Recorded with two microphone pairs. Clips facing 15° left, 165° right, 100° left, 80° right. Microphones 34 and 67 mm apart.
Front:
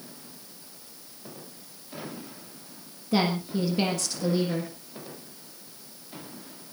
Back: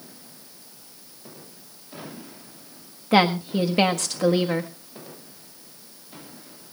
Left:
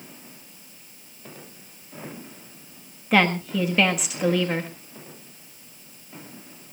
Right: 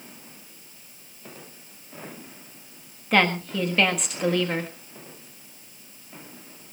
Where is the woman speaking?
175° right, 1.6 m.